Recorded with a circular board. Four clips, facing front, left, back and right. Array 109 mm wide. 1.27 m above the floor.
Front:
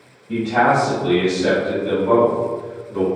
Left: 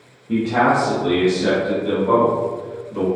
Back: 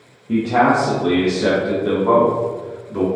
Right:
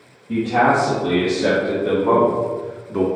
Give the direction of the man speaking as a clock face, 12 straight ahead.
6 o'clock.